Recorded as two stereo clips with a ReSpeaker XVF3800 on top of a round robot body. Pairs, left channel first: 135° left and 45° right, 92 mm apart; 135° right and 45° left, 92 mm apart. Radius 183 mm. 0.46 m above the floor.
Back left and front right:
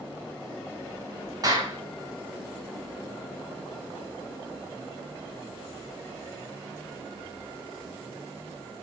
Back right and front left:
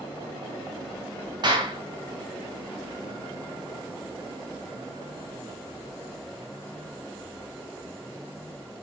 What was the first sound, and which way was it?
A clap, 5° left.